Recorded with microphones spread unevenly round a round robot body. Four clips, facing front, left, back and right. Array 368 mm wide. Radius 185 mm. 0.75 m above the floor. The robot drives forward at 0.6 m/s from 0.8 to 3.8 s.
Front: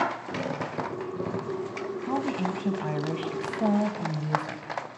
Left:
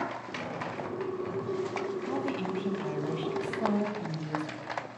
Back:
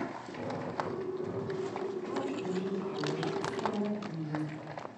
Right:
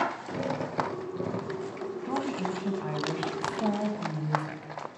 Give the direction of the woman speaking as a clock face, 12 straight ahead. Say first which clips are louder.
Right 1 dB, front 6 dB; 12 o'clock.